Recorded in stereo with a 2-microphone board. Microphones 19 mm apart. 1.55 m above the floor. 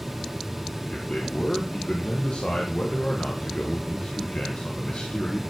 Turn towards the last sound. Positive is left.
turn(degrees=80)